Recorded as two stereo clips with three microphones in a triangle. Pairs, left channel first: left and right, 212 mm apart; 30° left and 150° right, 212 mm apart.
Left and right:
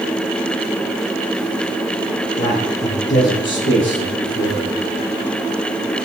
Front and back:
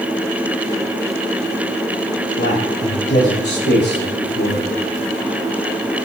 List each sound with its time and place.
2.4 s a man speaking: 55° left, 7 m; by 4.8 s 70° left, 9.5 m